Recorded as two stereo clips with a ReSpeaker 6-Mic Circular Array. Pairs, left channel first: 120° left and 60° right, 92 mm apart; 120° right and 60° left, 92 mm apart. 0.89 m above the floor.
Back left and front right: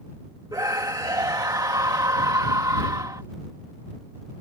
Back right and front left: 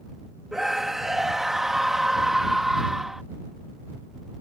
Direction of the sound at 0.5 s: 25° right.